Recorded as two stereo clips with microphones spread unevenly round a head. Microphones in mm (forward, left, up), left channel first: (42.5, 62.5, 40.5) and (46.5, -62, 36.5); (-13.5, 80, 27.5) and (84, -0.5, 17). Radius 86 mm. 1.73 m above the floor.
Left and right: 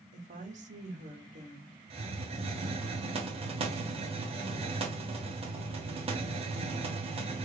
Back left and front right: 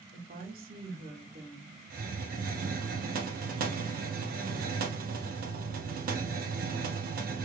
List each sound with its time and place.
0.1 s a woman speaking: 65° right, 1.0 m
1.9 s a hiss: 45° right, 0.9 m